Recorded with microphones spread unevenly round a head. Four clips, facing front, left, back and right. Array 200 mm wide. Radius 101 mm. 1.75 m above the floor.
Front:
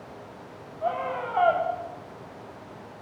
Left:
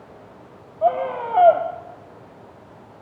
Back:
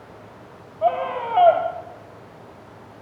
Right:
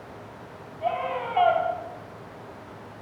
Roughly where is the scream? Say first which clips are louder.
Left 7 dB, back 7 dB; left.